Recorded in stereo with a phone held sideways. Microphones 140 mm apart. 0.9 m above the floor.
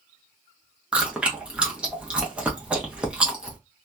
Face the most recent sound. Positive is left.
turn(degrees=-10)  # may be behind; listen again after turning